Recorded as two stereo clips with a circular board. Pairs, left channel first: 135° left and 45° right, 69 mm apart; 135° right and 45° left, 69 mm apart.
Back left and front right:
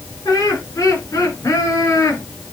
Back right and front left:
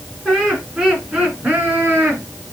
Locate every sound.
0.2 s laughter: 130° left, 3.5 m; by 2.2 s 105° left, 4 m